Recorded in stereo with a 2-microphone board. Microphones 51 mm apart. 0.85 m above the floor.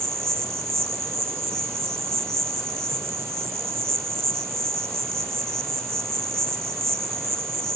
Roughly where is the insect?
Right.